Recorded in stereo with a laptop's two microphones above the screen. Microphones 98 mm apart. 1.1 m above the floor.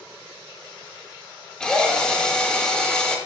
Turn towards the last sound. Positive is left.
turn(degrees=10)  # may be behind; listen again after turning